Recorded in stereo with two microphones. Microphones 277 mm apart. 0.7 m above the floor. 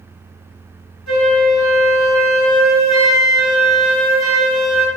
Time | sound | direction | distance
1.1 | a flute | 90° left | 1.8 m